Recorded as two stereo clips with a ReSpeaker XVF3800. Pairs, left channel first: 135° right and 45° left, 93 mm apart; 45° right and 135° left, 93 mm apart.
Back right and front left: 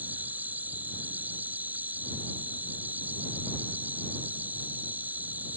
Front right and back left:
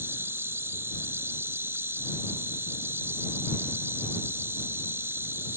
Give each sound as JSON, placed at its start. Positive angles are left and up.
{"t": 0.0, "sound": "an insect", "azimuth_deg": 100}